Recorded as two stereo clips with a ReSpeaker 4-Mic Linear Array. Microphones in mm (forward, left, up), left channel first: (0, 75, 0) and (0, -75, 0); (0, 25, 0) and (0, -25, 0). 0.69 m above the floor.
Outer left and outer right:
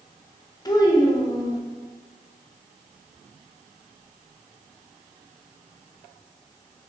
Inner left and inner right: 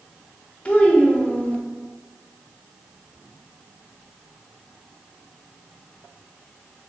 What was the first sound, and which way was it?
A child speaking, 25° left (ahead or behind).